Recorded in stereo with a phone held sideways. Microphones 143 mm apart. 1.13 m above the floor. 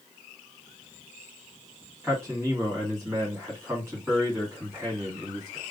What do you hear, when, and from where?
2.0 s a man speaking: 20° right (ahead or behind), 1.7 m